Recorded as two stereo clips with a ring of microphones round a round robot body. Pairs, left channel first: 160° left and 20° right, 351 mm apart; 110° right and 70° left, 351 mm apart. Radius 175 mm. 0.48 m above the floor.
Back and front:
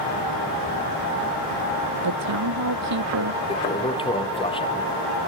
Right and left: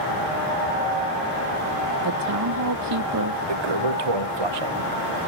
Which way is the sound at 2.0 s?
25° left.